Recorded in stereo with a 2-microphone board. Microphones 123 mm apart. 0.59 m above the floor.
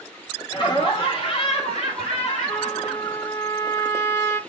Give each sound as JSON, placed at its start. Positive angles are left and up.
{"t": 0.5, "sound": "laughter", "side_deg": 40, "distance_m": 1.6}
{"t": 2.5, "sound": "a trumpet", "side_deg": 25, "distance_m": 0.6}